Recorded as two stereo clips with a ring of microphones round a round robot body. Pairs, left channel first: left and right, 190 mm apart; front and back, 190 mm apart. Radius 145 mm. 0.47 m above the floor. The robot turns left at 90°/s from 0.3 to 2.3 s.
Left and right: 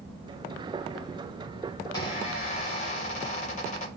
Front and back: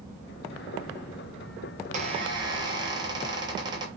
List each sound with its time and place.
1.8 s a squeak: 170° left, 0.5 m; by 3.9 s 125° left, 0.5 m